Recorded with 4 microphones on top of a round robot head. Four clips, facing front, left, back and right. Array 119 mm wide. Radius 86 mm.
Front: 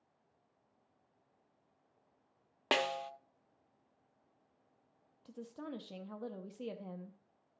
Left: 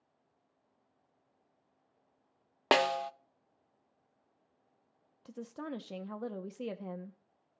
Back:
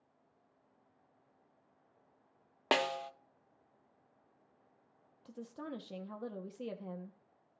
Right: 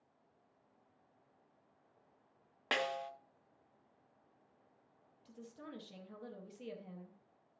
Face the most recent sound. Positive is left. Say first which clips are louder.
# left 10 dB, back 1 dB
turn(degrees=95)